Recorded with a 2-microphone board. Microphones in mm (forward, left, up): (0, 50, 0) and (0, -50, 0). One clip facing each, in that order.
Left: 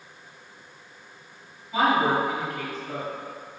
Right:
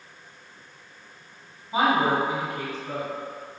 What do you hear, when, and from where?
1.7 s a woman speaking: 30° right (ahead or behind), 1.1 m